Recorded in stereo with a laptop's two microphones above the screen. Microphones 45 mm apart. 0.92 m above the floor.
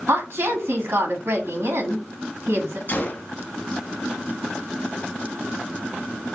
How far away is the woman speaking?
About 1.4 m.